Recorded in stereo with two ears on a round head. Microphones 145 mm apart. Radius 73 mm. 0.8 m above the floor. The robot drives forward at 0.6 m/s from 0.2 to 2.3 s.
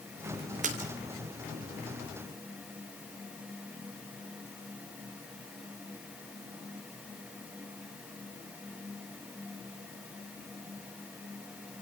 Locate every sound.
0.6 s a splash: 50° right (ahead or behind), 4 m